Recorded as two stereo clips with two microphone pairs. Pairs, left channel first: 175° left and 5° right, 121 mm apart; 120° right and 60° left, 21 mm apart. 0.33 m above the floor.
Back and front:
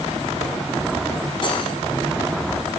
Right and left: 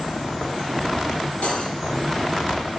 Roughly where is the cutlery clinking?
Behind right.